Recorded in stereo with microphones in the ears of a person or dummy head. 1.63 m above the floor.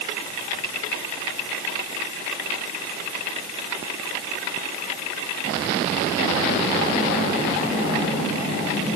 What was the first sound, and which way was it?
Only background noise.